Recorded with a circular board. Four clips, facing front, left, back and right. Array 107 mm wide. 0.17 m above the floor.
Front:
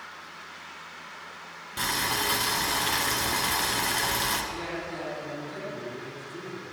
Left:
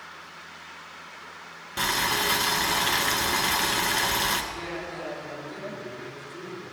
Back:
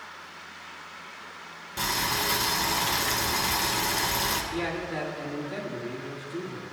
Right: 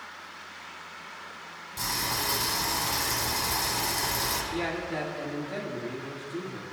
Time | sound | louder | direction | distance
1.8 | boiling | left 6 dB, even | 80° left | 2.0 m
4.5 | a man speaking | right 4 dB, back 4 dB | 125° right | 6.5 m